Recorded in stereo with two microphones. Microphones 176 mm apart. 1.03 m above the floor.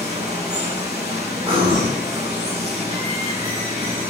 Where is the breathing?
30° right (ahead or behind), 1.9 m.